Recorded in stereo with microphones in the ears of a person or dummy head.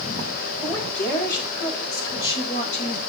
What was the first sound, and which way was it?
A woman speaking, 20° left (ahead or behind).